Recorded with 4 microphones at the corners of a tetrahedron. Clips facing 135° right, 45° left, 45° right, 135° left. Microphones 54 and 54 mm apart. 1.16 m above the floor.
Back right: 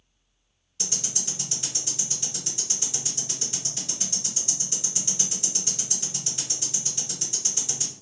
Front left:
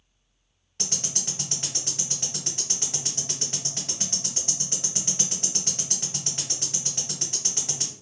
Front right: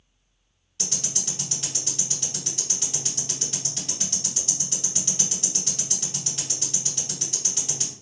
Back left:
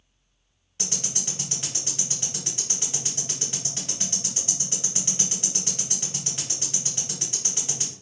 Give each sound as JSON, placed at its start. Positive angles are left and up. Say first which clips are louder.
{"t": 0.8, "sound": "ticking", "louder": "front left 1 dB, even", "azimuth_deg": 75, "distance_m": 1.8}